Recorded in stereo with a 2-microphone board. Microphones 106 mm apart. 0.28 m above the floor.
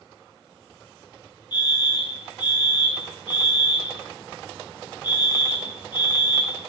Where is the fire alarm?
45° left (ahead or behind), 2.5 m.